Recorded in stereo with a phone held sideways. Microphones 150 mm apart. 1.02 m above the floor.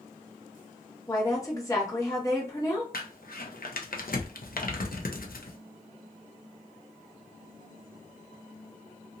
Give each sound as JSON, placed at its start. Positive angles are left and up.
{"t": 1.1, "sound": "a woman speaking", "side_deg": 25, "distance_m": 1.4}
{"t": 2.9, "sound": "crumpling", "side_deg": 75, "distance_m": 0.6}